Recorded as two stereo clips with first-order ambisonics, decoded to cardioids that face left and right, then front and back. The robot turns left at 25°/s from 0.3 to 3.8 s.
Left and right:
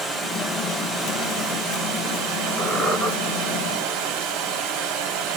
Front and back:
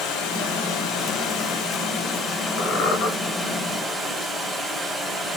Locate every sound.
0.0 s running water: straight ahead, 1.7 m; by 5.4 s 85° right, 1.7 m
2.6 s a squeak: 10° left, 2.5 m; by 3.1 s 5° right, 2.5 m